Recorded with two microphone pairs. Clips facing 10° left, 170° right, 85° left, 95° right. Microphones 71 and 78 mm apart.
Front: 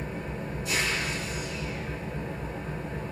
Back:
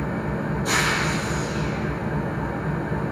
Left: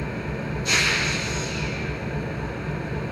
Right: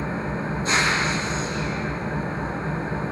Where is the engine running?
150° right, 1.5 m.